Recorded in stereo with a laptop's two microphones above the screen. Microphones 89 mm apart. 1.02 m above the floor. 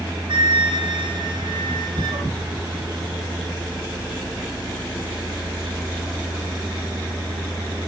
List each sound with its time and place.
0.3 s a flute: 65° right (ahead or behind), 2 m